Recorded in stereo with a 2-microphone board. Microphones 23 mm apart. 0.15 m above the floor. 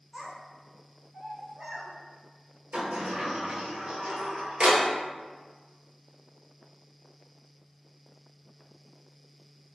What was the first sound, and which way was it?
A child speaking, 30° right (ahead or behind).